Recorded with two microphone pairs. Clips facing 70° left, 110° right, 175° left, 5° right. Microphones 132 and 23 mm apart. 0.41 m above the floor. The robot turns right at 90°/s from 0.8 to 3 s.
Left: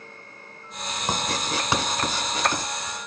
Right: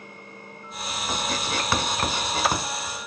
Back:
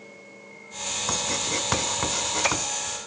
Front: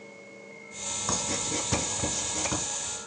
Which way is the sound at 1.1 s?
85° left.